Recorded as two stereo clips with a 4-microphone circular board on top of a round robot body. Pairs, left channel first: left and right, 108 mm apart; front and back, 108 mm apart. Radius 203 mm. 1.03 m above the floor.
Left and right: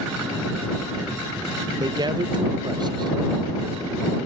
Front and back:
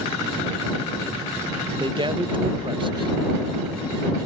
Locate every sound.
1.8 s a man speaking: 140° right